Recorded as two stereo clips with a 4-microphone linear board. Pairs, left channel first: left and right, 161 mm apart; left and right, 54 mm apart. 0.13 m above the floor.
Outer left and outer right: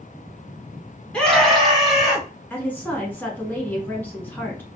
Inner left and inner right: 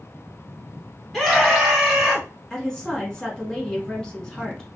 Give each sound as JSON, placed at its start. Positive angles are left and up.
{"t": 1.1, "sound": "a scream", "side_deg": 5, "distance_m": 1.2}
{"t": 2.5, "sound": "a woman speaking", "side_deg": 10, "distance_m": 1.1}